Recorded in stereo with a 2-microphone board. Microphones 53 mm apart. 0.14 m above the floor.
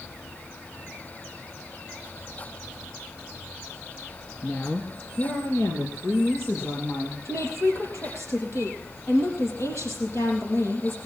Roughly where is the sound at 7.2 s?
Left.